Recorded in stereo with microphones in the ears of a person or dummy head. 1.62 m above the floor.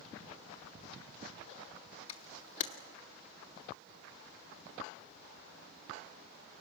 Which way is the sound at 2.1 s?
35° left (ahead or behind).